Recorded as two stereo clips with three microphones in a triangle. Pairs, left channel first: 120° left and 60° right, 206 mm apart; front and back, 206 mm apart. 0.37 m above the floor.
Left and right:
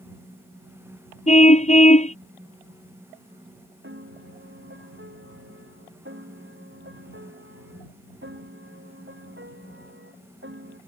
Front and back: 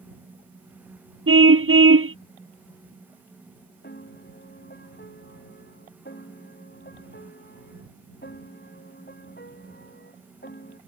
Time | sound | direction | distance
1.3 | a car horn | 175° left | ?
3.8 | a piano | 35° right | ?